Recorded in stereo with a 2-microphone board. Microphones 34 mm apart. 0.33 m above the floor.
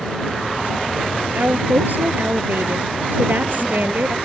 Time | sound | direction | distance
1.4 | a woman speaking | 60° right (ahead or behind) | ?